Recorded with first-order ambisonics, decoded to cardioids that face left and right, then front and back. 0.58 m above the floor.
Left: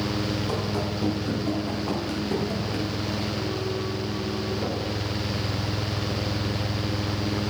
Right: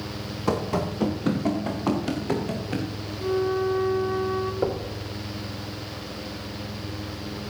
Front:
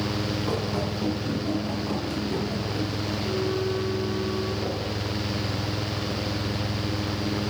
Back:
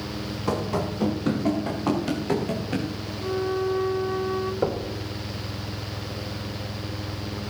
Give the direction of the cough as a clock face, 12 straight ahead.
I don't hear a cough.